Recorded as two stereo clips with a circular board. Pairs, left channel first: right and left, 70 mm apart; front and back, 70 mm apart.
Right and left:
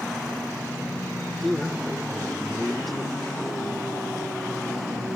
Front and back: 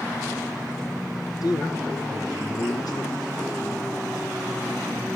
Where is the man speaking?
Straight ahead, 0.9 m.